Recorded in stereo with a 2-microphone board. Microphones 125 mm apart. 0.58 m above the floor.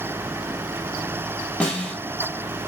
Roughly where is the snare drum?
Centre.